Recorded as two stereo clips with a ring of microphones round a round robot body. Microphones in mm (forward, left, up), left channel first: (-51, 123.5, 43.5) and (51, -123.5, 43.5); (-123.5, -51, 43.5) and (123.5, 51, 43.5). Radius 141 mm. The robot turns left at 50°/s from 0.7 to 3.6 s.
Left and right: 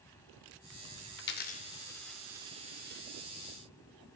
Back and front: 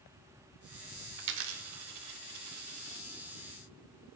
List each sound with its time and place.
1.2 s a dropped coin: 70° left, 0.6 m; by 3.0 s 20° right, 0.6 m